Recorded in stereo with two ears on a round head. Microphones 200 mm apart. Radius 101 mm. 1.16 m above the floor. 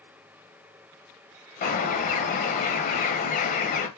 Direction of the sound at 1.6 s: 35° left (ahead or behind).